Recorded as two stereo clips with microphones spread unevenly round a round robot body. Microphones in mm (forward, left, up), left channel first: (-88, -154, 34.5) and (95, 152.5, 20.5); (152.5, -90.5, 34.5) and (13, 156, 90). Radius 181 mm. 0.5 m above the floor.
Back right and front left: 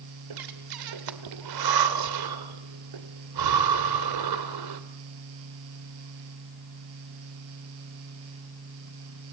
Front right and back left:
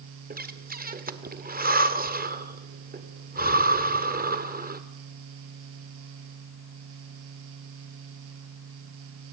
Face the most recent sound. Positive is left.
turn(degrees=55)